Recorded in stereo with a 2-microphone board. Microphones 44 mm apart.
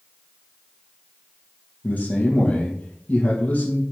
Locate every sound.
1.8 s a man speaking: 35° left (ahead or behind), 3 m